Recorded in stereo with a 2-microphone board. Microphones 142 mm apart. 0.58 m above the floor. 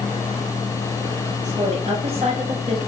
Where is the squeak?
I don't hear a squeak.